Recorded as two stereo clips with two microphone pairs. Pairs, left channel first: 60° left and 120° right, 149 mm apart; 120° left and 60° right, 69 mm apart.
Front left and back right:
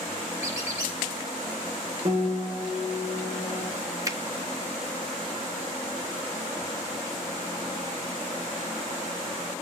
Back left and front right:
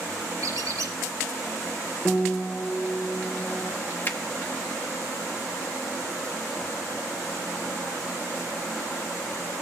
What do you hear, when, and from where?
0.4 s a squeak: 55° right, 3.5 m
2.0 s a piano: 160° right, 1.3 m
4.0 s a finger snap: 175° left, 0.8 m